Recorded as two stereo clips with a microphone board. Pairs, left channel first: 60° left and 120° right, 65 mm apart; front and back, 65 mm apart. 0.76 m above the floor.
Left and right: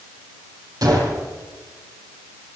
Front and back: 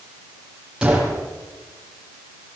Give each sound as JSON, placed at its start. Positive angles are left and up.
{"t": 0.8, "sound": "a gunshot", "azimuth_deg": -105, "distance_m": 7.0}